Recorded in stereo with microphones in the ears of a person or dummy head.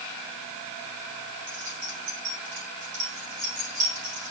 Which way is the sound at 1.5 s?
60° right (ahead or behind).